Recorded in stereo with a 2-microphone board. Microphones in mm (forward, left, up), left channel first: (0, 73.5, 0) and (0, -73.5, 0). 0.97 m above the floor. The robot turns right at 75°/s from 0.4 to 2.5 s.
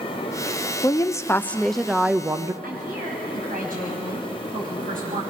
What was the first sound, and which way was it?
A woman speaking, 25° left (ahead or behind).